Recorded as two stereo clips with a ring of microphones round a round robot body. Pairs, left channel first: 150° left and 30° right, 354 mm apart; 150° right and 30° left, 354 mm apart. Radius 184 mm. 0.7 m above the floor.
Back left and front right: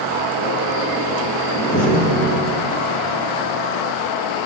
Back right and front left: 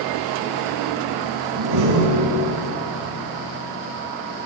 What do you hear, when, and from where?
1.5 s a door slam: 70° left, 8 m